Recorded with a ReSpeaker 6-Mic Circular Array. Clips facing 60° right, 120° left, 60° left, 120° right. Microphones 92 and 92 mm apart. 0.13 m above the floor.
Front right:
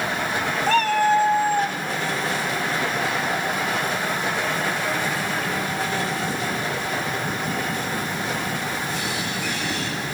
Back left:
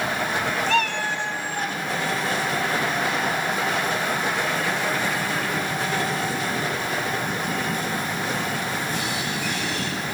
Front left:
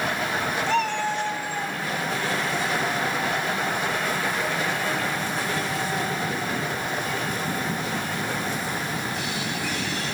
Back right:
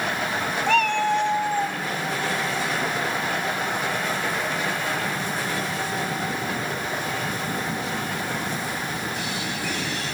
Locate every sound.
0.7 s a cat meowing: 105° right, 2.5 m